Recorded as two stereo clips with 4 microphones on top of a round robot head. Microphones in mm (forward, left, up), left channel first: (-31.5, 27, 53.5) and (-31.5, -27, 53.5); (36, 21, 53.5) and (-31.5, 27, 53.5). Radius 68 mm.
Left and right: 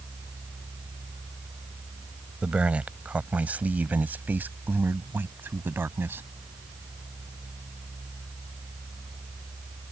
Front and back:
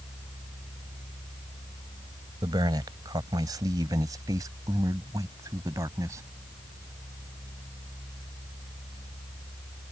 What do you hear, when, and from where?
2.4 s a man speaking: 160° right; by 6.2 s 135° right